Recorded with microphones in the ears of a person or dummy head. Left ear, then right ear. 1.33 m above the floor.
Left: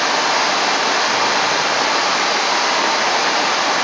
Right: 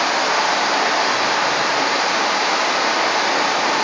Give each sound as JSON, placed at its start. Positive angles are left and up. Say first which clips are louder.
{"t": 0.0, "sound": "running water", "louder": "left 1 dB", "side_deg": 10, "distance_m": 1.5}